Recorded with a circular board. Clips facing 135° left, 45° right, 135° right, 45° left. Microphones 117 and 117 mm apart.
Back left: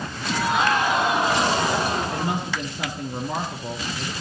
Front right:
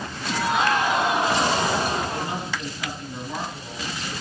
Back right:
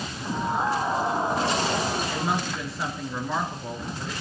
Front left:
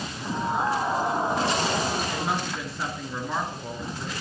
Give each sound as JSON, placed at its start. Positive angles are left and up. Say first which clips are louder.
{"t": 2.1, "sound": "a woman speaking", "louder": "back left 3 dB, back right 1 dB", "azimuth_deg": 135, "distance_m": 3.5}